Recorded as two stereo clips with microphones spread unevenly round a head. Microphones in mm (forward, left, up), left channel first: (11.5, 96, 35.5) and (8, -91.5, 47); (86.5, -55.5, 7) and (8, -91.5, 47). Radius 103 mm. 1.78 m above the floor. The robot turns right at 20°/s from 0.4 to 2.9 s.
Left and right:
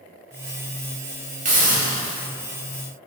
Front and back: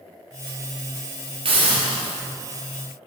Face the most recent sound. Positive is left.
turn(degrees=-115)